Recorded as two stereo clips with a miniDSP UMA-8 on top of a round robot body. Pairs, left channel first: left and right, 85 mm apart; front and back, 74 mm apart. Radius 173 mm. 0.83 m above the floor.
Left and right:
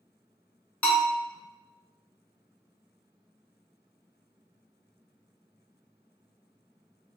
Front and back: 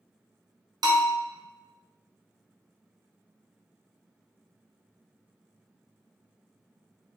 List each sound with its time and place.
0.8 s a bell: 165° left, 1.0 m